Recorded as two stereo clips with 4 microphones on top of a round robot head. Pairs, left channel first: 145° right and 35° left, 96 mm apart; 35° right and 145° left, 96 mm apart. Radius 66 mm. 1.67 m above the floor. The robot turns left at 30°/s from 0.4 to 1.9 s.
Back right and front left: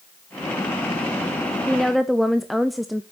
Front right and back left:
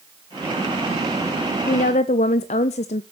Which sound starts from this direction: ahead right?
A woman speaking, at 1.7 s.